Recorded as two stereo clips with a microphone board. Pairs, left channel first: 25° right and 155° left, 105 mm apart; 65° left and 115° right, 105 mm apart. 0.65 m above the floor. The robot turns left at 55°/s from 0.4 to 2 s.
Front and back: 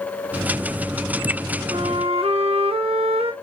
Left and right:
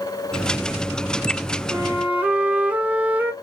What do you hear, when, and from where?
1.7 s a flute: 170° right, 0.5 m; by 3.3 s 175° left, 0.5 m